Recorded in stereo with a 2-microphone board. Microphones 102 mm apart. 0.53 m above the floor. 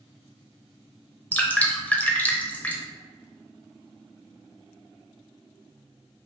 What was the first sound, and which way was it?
Dripping, 15° left (ahead or behind).